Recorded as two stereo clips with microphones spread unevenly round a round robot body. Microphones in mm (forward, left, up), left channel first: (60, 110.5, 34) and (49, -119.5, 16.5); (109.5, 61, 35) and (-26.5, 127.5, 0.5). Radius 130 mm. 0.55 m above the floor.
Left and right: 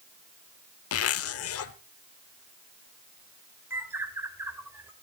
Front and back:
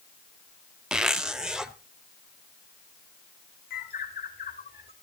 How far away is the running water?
I don't hear running water.